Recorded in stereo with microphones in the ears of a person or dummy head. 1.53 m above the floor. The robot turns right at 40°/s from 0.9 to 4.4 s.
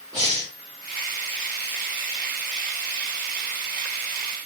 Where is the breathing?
25° right (ahead or behind), 1.5 m.